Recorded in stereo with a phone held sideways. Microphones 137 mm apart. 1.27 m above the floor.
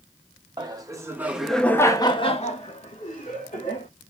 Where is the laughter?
30° right (ahead or behind), 1.1 m; by 3.9 s 85° left, 1.6 m.